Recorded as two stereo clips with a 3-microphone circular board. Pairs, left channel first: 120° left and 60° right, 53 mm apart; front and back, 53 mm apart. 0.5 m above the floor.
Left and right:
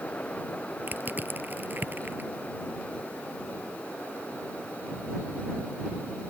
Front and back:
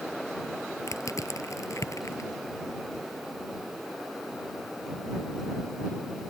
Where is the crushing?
10° right.